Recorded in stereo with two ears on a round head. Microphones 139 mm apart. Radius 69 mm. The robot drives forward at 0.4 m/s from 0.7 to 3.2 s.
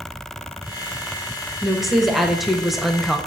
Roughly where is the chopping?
I don't hear chopping.